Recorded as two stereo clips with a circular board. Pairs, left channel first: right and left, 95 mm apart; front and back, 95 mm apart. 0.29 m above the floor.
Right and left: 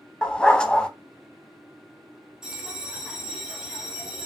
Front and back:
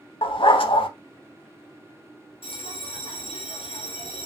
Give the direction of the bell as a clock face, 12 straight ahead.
12 o'clock.